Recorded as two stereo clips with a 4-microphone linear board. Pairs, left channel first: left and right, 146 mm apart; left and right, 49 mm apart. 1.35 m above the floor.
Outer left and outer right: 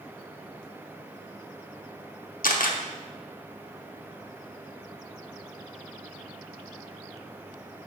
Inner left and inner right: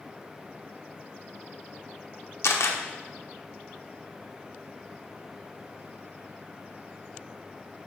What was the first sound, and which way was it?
A camera shutter, 85° left.